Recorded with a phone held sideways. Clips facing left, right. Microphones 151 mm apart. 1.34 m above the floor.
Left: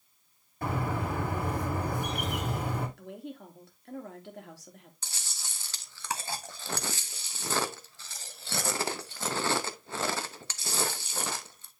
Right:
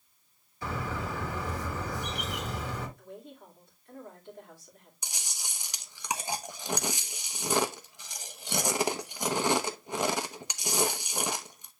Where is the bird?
55° left (ahead or behind), 2.5 m.